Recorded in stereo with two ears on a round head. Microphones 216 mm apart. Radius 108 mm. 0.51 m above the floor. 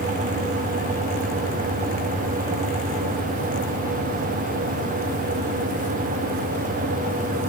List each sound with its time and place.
Only background noise.